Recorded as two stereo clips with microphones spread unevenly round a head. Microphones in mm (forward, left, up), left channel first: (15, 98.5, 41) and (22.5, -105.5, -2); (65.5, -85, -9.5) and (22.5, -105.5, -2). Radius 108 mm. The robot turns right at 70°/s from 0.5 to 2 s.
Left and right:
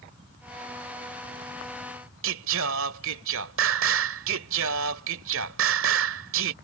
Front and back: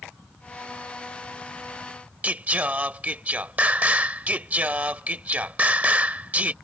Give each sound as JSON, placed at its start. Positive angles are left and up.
{"t": 2.2, "sound": "singing", "azimuth_deg": -115}